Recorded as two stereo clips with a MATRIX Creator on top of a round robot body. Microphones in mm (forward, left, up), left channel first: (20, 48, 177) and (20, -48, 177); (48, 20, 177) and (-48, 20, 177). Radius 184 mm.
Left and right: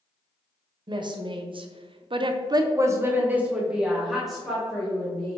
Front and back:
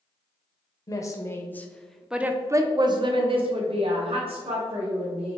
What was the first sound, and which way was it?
A woman speaking, 50° right.